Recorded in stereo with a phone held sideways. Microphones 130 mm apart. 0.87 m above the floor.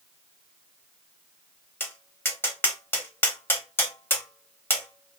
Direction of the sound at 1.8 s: 15° left (ahead or behind).